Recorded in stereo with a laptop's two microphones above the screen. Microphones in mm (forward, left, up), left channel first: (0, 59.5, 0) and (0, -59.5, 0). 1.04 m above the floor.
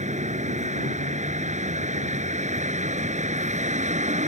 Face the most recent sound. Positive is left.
turn(degrees=-80)